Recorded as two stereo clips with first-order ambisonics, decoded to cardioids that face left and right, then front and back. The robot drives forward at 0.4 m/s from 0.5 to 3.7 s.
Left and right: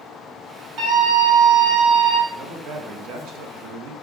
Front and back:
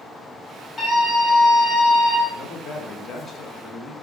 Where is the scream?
60° right, 1.8 m; by 2.2 s 85° right, 1.6 m.